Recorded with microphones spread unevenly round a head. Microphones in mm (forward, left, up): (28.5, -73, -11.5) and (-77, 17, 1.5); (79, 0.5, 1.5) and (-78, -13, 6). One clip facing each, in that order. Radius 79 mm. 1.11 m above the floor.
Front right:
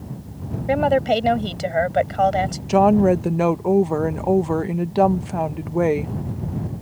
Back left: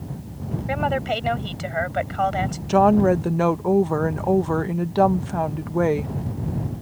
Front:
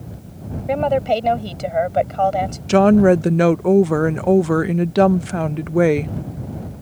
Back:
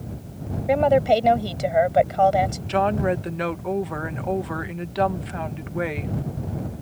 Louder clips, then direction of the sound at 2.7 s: Front right 1 dB, front 12 dB; 40° left.